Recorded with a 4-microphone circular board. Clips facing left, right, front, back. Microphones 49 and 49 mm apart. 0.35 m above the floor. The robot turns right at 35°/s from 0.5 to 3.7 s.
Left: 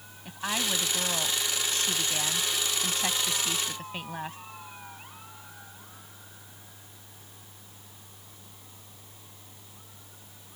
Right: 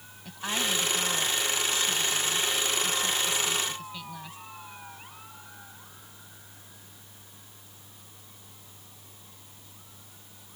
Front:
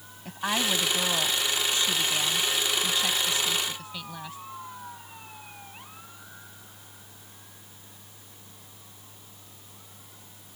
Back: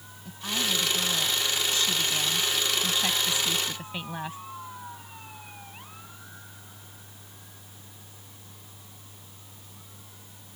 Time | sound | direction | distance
0.2 | a woman speaking | 15° left | ?